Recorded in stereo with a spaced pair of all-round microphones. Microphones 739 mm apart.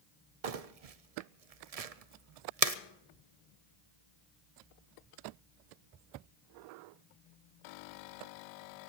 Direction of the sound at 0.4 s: 55° right (ahead or behind).